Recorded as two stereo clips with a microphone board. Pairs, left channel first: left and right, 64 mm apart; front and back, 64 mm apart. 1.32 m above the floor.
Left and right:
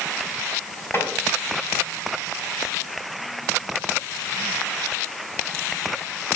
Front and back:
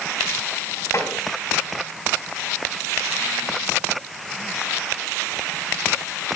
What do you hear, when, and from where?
0.9 s tapping: 40° left, 3.5 m